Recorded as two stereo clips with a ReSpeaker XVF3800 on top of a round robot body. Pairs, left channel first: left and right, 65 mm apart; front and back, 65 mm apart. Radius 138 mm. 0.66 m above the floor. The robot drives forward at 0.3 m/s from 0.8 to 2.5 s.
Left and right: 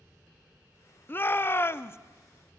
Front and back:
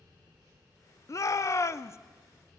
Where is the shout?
35° left, 1.3 m; by 2.0 s 40° left, 1.1 m.